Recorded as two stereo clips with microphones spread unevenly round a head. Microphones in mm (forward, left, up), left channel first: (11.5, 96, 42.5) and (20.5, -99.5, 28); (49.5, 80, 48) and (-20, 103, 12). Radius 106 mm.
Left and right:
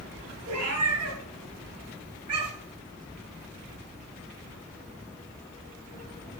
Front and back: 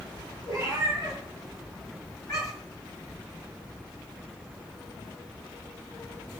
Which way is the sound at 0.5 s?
85° right.